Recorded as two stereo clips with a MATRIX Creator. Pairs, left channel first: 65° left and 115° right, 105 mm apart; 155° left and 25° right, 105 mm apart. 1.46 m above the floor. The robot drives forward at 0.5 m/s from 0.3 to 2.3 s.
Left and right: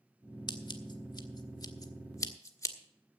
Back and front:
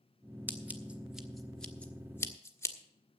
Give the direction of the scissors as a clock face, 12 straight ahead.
11 o'clock.